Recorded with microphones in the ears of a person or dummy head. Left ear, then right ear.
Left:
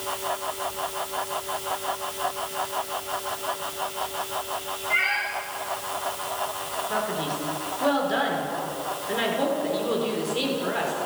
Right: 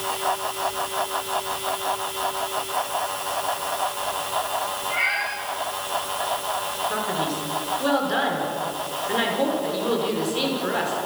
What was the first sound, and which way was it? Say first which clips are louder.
A cat meowing: left 1 dB; 25° left (ahead or behind).